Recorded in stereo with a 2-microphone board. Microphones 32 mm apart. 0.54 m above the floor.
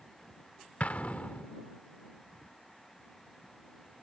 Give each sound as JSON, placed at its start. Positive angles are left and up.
{"t": 0.8, "sound": "an explosion", "side_deg": 60}